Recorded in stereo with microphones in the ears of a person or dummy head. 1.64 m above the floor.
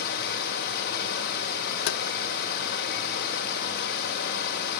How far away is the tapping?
About 0.5 m.